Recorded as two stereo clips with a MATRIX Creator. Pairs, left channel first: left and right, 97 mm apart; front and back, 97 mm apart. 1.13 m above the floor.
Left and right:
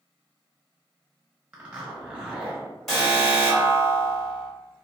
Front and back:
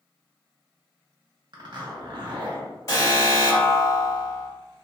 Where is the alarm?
Straight ahead, 1.3 m.